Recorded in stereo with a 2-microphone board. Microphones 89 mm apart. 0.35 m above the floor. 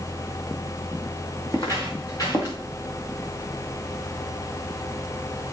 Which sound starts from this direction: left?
Footsteps, at 1.5 s.